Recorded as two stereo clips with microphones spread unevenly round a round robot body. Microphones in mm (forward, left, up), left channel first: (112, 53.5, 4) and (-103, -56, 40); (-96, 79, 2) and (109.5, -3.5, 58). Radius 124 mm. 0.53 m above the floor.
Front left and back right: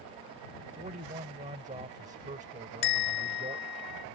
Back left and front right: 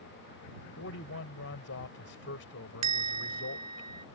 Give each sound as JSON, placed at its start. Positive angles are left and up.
{"t": 0.8, "sound": "a man speaking", "azimuth_deg": 145}
{"t": 2.8, "sound": "a bell", "azimuth_deg": -10}